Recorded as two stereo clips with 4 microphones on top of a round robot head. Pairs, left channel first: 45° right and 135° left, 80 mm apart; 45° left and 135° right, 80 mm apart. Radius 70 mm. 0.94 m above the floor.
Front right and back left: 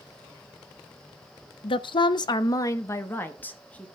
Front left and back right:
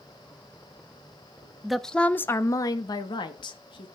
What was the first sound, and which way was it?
A woman speaking, 45° right.